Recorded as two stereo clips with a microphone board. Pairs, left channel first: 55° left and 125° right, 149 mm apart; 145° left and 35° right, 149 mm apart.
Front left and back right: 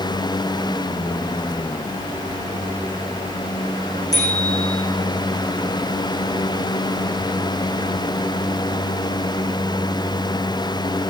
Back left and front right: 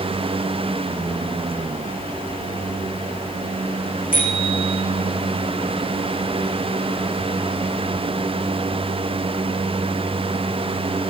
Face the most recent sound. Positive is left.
turn(degrees=120)